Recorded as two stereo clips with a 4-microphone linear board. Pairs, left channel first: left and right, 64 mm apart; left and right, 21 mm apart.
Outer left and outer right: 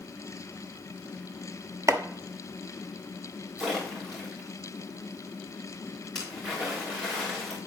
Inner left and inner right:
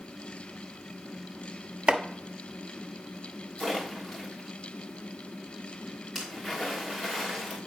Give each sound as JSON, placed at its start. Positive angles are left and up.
{"t": 1.9, "sound": "chopping", "side_deg": -50, "distance_m": 0.7}
{"t": 3.6, "sound": "a splash", "side_deg": -5, "distance_m": 3.0}